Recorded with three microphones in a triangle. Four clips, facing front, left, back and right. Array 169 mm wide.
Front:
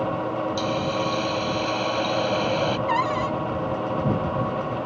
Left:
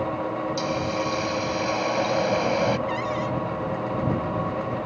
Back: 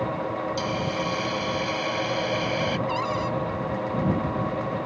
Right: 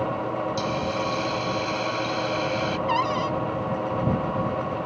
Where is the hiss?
70° left.